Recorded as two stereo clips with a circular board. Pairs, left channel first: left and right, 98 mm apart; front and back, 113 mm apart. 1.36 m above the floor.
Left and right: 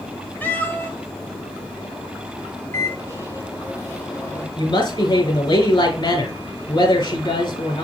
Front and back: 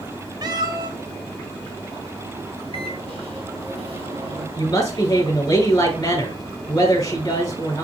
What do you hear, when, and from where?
0.4 s a cat meowing: 150° left, 1.0 m
2.7 s a microwave: 150° left, 3.5 m
4.6 s a woman speaking: 60° left, 4.5 m